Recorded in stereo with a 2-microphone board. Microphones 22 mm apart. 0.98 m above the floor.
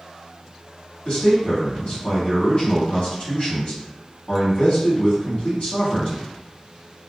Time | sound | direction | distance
1.1 | a man speaking | 50° left (ahead or behind) | 1.4 m